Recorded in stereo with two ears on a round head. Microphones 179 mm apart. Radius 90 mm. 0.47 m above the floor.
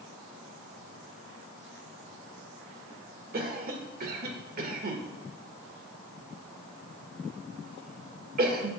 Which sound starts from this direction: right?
A cough, at 3.3 s.